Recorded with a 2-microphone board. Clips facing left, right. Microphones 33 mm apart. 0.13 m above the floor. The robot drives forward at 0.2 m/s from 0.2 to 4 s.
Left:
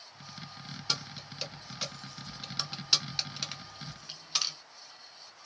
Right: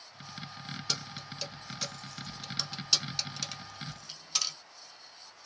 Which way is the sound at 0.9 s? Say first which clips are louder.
Left 3 dB; 20° left (ahead or behind).